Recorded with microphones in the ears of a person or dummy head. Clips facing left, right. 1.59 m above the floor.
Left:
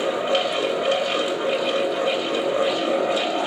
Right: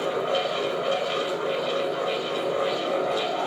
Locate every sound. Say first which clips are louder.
0.0 s a fan: left 3 dB; 30° left (ahead or behind), 1.6 m